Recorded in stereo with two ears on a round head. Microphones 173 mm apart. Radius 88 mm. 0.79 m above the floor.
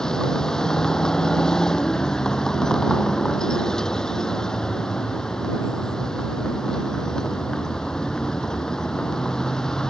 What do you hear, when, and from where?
0.0 s a vehicle: 5° left (ahead or behind)